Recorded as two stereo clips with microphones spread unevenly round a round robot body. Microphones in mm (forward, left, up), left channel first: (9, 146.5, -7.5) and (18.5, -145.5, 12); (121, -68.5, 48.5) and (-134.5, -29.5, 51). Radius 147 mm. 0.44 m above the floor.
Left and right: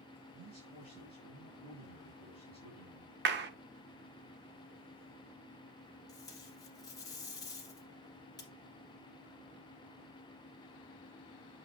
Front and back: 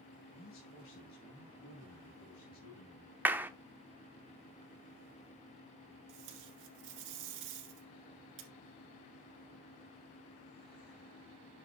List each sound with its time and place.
0.3 s a man speaking: 45° right, 3 m
3.2 s a clap: 110° right, 0.7 m
6.1 s tape being pulled: 170° left, 1.7 m